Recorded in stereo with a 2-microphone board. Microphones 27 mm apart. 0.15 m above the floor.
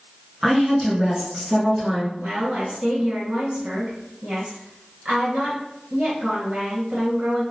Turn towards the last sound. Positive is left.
turn(degrees=-55)  # may be behind; listen again after turning